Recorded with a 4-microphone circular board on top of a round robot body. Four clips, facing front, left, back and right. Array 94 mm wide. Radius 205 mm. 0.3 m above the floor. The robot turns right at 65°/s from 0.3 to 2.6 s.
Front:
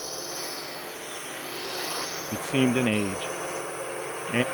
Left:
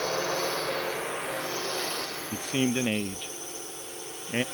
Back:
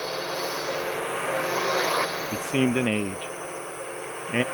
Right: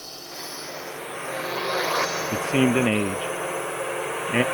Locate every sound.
0.0 s a drone: 120° left; by 4.5 s 90° right
2.3 s a man speaking: 120° right; by 4.4 s 100° right